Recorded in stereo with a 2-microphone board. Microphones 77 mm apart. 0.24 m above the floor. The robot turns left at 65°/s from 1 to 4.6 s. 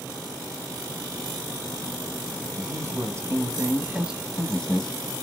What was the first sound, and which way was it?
A man speaking, 65° right.